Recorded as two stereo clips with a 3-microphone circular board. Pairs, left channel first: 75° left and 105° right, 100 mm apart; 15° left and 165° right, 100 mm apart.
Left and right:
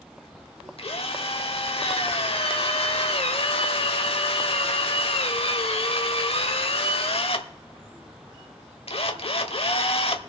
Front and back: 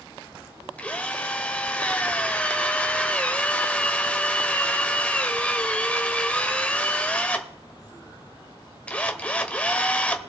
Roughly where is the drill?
Left.